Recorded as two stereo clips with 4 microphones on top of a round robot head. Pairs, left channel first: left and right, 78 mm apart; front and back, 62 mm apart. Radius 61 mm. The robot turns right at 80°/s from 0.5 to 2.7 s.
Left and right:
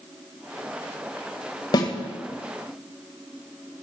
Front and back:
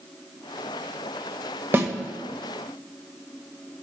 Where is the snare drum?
125° left, 1.5 m; by 1.9 s 140° left, 1.5 m.